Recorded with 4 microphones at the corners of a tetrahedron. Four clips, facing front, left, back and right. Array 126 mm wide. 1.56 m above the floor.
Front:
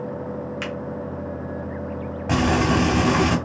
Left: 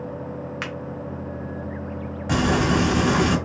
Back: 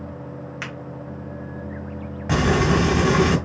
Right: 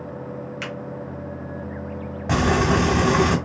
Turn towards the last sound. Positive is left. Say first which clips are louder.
# right 1 dB, even
turn(degrees=-65)